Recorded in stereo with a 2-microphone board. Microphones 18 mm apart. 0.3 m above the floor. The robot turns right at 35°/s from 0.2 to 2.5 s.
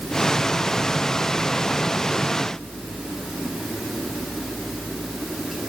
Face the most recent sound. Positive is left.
No sound to turn to.